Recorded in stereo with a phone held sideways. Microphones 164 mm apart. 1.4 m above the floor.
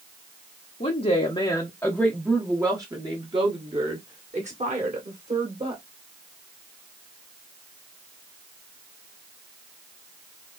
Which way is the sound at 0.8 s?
50° left (ahead or behind).